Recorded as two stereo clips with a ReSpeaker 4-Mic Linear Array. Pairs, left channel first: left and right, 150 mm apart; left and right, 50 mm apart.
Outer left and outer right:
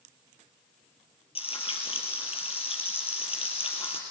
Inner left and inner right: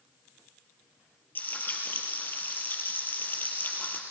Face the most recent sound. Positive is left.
turn(degrees=35)  # may be behind; listen again after turning